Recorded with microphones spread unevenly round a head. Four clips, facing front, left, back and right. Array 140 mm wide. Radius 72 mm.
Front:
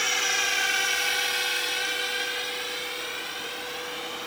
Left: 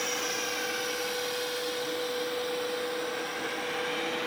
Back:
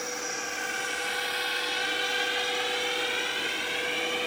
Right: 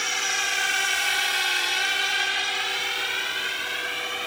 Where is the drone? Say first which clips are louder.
Right 3 dB, front 5 dB; 40° right; by 4.3 s 130° right.